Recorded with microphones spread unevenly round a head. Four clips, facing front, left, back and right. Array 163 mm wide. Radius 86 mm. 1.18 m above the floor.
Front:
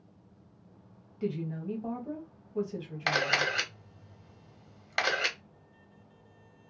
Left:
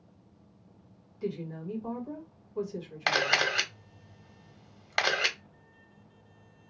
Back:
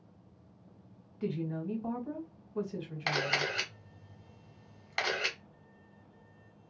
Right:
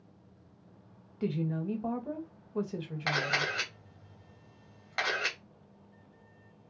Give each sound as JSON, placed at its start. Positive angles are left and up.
{"t": 1.2, "sound": "a woman speaking", "azimuth_deg": -70, "distance_m": 1.3}
{"t": 3.1, "sound": "a camera shutter", "azimuth_deg": 75, "distance_m": 1.2}